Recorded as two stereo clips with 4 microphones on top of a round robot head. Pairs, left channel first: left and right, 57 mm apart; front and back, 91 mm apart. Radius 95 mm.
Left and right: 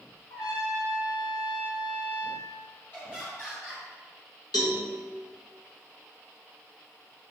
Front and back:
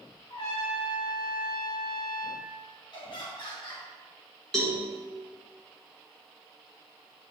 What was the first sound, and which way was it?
A trumpet, 40° left.